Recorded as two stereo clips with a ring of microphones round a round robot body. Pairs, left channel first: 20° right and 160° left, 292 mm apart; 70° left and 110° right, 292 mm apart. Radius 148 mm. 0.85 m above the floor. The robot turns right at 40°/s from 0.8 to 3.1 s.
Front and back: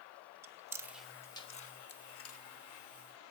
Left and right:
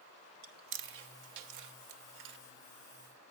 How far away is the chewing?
About 1.1 m.